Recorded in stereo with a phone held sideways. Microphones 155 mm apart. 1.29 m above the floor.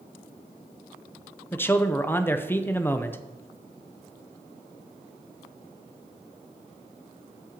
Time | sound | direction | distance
1.5 | a man speaking | 15° left (ahead or behind) | 0.7 m